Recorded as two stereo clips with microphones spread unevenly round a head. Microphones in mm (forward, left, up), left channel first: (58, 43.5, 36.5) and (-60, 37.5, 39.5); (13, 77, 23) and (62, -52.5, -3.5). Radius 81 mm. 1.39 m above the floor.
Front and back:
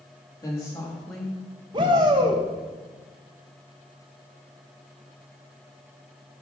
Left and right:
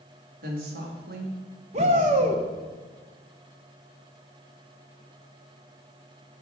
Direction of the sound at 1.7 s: 120° right.